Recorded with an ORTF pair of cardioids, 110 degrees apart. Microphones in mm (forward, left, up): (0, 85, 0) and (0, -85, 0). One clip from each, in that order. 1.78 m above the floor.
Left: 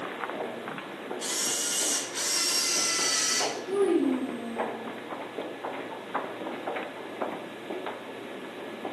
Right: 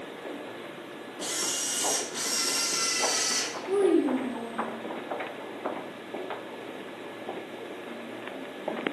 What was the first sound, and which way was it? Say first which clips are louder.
A camera shutter: even; 5° left.